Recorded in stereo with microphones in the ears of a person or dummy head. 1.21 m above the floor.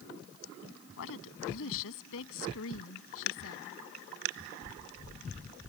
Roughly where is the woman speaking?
Left.